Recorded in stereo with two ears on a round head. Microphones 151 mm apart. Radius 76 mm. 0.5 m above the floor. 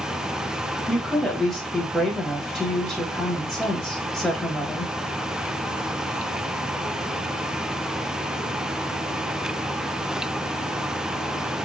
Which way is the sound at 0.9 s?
Centre (ahead or behind).